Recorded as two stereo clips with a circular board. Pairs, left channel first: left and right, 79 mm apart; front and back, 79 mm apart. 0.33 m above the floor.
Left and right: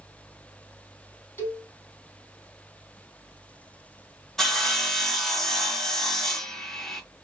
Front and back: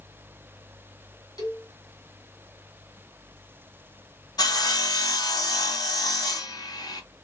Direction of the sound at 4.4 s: 5° left.